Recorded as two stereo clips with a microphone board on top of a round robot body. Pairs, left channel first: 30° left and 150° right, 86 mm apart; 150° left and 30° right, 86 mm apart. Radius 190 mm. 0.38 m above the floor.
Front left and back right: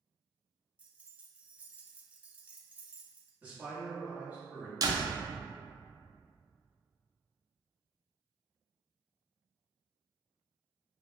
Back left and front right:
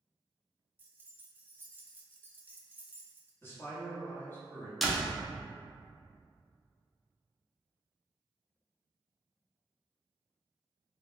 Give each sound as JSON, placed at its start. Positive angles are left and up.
{"t": 0.8, "sound": "keys jangling", "azimuth_deg": -85, "distance_m": 0.6}
{"t": 3.4, "sound": "a man speaking", "azimuth_deg": 160, "distance_m": 1.2}
{"t": 4.8, "sound": "a door slam", "azimuth_deg": -120, "distance_m": 0.6}